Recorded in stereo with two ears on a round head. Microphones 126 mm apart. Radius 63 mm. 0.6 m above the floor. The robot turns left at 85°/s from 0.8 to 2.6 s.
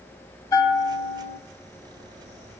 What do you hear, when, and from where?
0.5 s a bell: 150° left, 0.7 m; by 1.4 s 100° left, 0.7 m